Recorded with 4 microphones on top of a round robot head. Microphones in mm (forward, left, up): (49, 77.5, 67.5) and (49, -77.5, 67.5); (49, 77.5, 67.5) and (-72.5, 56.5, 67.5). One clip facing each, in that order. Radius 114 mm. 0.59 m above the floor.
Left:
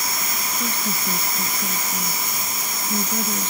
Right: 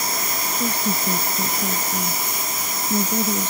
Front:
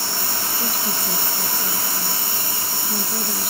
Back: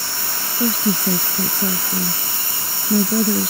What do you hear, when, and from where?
0.6 s a woman speaking: 170° right